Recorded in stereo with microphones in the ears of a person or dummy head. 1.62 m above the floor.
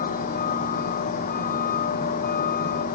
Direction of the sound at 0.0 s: 45° left (ahead or behind).